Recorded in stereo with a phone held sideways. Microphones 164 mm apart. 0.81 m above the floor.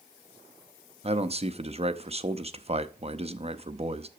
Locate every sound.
1.0 s a man speaking: 40° right (ahead or behind), 0.7 m